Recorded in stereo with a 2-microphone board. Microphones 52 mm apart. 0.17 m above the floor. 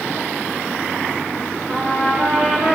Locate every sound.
1.7 s a trumpet: 20° right (ahead or behind), 3 m